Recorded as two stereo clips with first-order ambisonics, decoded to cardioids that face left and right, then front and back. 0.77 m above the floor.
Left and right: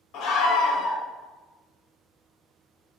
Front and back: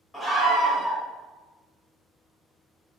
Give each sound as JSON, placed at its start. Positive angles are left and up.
{"t": 0.1, "sound": "a scream", "azimuth_deg": 85, "distance_m": 0.7}